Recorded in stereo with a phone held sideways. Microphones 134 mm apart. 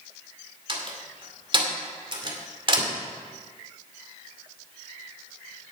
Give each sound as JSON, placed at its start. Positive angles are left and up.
{"t": 0.7, "sound": "a door slam", "side_deg": -40, "distance_m": 2.0}